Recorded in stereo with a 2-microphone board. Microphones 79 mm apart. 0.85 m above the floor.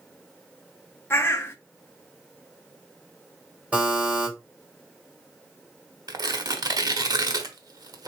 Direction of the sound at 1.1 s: 30° left (ahead or behind).